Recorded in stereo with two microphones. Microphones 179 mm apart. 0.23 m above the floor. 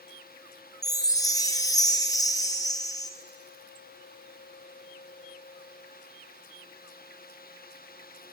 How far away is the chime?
About 2 m.